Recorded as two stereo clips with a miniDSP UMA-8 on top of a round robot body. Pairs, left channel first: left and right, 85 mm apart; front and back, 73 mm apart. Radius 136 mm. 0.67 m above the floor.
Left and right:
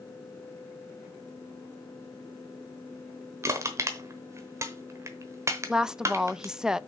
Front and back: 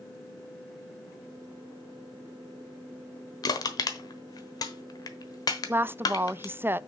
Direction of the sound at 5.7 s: 165° right.